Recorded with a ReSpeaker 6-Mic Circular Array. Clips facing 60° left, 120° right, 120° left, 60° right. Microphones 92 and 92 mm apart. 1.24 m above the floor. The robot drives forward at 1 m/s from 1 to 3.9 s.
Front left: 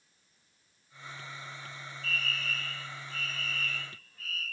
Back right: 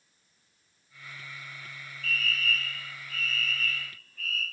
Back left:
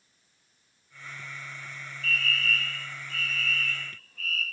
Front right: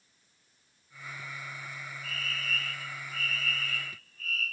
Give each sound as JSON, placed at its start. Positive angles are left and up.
{"t": 2.0, "sound": "a fire alarm", "azimuth_deg": 120, "distance_m": 7.5}